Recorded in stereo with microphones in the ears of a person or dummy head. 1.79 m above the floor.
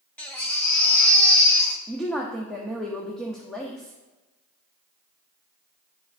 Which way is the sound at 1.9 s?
Centre (ahead or behind).